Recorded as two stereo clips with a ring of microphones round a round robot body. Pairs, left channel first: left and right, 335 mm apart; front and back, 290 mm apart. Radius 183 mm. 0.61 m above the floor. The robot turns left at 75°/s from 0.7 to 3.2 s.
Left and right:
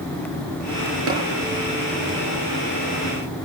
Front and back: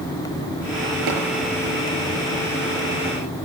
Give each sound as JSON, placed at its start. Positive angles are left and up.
{"t": 1.1, "sound": "tapping", "azimuth_deg": -140, "distance_m": 9.0}